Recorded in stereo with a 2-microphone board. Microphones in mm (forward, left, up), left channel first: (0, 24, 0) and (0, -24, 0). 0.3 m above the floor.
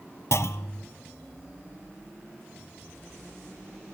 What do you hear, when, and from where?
0.3 s a clunk: 60° left (ahead or behind), 0.7 m